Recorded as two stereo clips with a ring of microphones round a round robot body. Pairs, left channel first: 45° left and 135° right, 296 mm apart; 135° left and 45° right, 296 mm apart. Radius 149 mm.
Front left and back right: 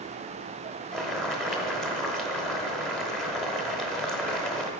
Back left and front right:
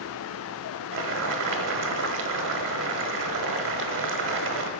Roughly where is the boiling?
Ahead right.